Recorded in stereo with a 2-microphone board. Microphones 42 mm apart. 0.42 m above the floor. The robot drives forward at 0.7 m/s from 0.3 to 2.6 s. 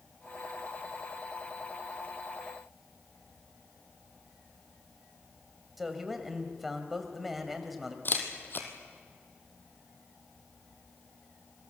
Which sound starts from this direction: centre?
A man speaking, at 5.8 s.